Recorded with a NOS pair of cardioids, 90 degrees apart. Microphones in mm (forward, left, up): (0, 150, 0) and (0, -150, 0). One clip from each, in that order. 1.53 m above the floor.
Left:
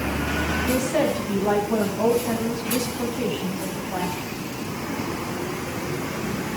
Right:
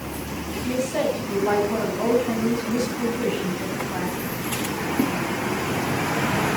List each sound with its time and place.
0.6 s a woman speaking: 20° left, 10 m; by 4.2 s 10° left, 10 m